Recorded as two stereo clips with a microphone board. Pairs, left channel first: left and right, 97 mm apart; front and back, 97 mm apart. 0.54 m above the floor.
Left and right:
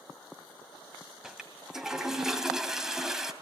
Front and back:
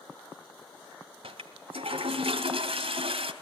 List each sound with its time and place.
1.2 s a toilet flushing: 175° right, 2.5 m